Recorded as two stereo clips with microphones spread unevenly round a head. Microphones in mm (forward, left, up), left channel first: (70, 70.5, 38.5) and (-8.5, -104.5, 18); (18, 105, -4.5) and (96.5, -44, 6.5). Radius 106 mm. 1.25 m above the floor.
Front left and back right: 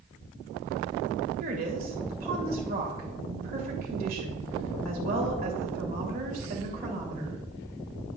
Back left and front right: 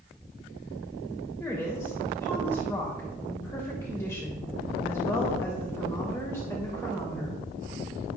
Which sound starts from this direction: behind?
A woman speaking, at 1.4 s.